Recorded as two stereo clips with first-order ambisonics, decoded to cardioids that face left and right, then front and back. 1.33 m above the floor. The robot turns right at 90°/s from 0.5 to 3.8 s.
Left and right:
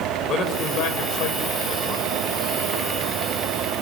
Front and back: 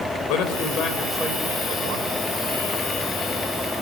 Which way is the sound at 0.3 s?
30° left.